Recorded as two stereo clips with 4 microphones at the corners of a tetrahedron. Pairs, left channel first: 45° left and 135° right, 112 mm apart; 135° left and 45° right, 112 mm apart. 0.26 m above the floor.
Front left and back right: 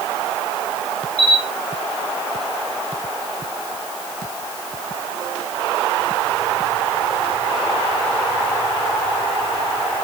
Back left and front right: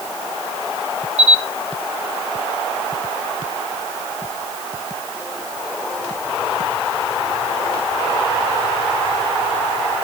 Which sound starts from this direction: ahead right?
A camera shutter, at 1.2 s.